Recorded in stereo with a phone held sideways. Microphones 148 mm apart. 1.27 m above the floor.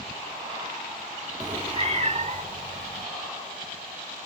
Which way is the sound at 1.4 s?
20° right (ahead or behind).